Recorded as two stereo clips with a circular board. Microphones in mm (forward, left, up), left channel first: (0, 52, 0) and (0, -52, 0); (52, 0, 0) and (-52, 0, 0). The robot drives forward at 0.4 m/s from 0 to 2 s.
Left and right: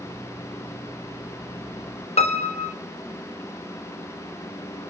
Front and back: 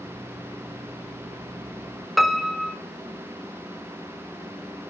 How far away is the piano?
About 1.1 m.